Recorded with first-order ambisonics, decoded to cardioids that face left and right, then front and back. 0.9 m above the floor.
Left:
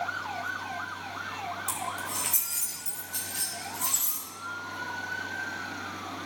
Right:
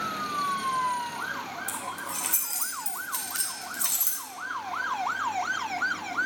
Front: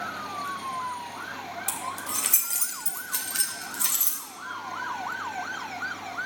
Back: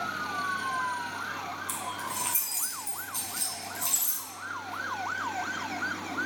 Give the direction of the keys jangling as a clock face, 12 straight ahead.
12 o'clock.